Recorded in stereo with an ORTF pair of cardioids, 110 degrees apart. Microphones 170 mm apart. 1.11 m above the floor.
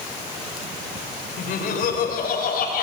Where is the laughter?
55° left, 4.5 m.